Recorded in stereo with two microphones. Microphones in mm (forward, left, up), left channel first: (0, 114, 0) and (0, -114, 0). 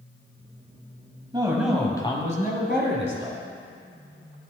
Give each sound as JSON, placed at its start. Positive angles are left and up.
{"t": 1.3, "sound": "a man speaking", "side_deg": -20, "distance_m": 1.5}